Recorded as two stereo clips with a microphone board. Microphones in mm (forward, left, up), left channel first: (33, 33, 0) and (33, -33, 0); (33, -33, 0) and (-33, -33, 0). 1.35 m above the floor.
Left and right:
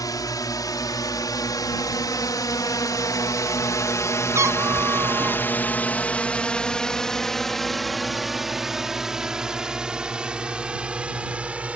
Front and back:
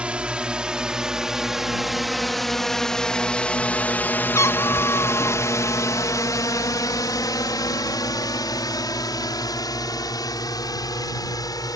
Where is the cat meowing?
45° right.